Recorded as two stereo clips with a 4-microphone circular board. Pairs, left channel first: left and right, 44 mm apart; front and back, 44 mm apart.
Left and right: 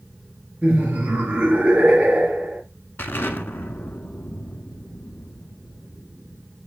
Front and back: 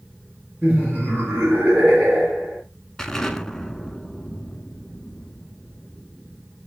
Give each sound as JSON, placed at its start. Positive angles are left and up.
{"t": 0.6, "sound": "laughter", "azimuth_deg": -150, "distance_m": 3.0}
{"t": 3.0, "sound": "an explosion", "azimuth_deg": 75, "distance_m": 0.6}